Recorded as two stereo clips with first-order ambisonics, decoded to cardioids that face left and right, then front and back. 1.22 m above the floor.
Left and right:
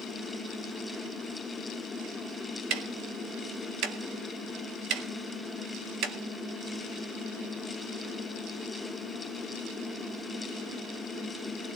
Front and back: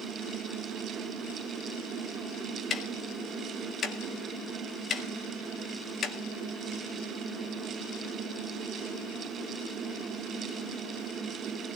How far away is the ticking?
About 1.9 m.